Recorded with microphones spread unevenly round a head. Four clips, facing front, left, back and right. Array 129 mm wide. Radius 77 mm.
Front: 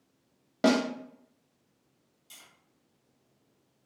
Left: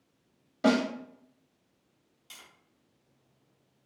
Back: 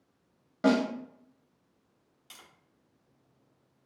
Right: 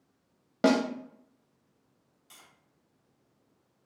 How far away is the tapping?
About 2 m.